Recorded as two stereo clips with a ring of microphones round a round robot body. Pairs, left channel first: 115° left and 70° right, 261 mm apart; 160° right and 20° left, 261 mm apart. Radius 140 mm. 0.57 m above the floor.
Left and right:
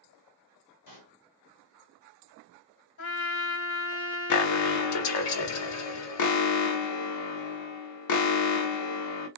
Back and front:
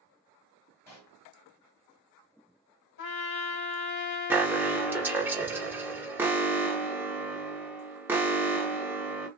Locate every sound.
0.9 s a pop: 120° left, 1.6 m
3.0 s a trumpet: 150° left, 1.3 m
4.3 s an alarm: 105° left, 0.7 m